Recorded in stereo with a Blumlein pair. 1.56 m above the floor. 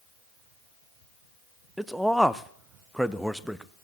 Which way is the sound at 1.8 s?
Straight ahead.